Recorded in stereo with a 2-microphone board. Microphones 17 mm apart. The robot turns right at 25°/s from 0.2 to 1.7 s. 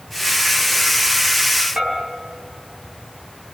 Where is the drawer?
I don't hear a drawer.